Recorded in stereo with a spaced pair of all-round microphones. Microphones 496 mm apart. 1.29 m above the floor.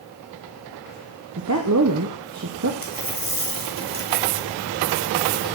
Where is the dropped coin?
25° right (ahead or behind), 2.5 m.